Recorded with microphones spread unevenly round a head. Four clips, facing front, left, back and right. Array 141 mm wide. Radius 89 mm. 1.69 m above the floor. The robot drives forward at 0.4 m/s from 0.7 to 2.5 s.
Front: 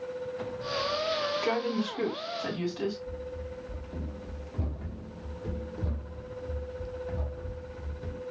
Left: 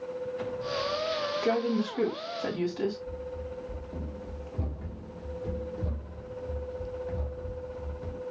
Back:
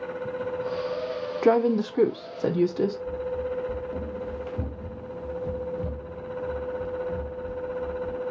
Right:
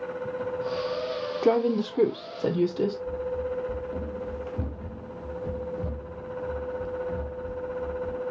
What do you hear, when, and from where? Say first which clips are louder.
1.4 s a woman speaking: right 6 dB, back 8 dB; 145° right, 0.7 m; by 3.0 s 160° right, 1.0 m
3.1 s running footsteps: right 8 dB, back 10 dB; 125° right, 2 m; by 8.2 s 10° right, 3 m